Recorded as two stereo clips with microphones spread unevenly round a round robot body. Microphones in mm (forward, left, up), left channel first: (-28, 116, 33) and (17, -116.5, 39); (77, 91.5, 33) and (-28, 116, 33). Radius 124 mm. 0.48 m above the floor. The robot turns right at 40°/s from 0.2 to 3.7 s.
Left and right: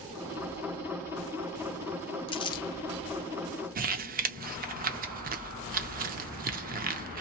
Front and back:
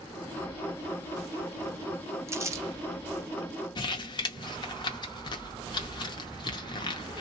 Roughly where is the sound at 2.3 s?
Behind left.